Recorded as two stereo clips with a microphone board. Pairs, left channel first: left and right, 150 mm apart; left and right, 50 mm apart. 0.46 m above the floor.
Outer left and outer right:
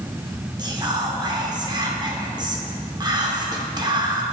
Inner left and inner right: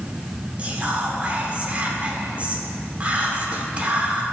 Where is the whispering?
30° right (ahead or behind), 0.8 m.